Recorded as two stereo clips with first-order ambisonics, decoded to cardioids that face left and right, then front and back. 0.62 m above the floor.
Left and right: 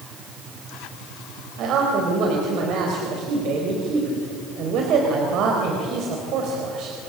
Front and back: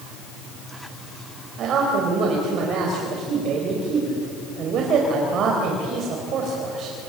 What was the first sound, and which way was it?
A man speaking, 130° right.